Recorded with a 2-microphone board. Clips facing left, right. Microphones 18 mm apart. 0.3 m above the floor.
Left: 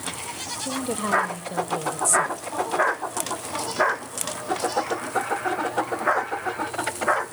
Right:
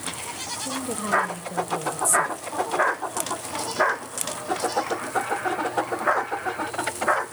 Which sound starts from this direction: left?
A woman speaking, at 0.6 s.